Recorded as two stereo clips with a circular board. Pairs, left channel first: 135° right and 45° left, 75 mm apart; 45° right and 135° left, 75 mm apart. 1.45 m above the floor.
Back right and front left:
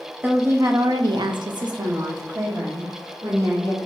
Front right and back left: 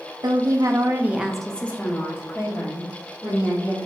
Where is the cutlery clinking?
I don't hear cutlery clinking.